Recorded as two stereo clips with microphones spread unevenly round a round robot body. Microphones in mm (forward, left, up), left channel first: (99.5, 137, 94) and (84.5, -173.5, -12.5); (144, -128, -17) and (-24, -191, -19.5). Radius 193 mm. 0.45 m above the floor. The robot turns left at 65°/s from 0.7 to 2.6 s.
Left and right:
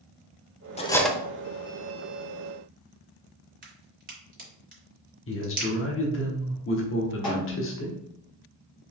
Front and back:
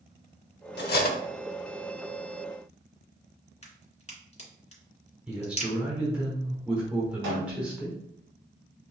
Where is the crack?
30° right, 2.5 m.